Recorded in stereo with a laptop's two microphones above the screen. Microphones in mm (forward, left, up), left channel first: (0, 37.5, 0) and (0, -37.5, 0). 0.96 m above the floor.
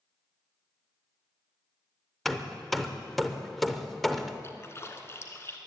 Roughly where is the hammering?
Centre.